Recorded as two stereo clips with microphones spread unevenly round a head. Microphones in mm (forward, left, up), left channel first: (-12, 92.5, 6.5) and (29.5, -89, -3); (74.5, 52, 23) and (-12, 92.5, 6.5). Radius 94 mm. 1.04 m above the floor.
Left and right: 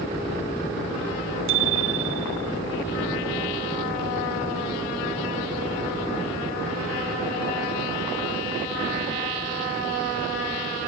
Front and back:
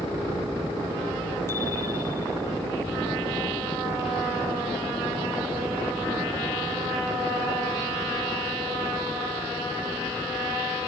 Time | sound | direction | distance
1.5 | a bicycle bell | 100° right | ?